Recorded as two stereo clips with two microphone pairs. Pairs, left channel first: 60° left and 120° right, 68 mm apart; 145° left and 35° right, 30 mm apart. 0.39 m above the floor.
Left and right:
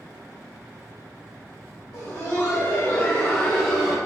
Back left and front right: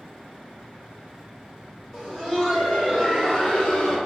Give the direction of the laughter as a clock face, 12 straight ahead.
11 o'clock.